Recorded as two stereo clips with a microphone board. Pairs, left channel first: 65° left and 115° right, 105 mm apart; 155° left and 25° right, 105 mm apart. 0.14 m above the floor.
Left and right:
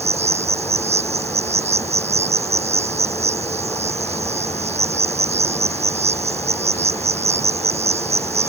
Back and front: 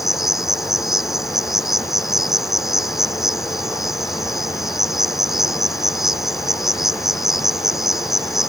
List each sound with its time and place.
0.0 s an insect: 110° right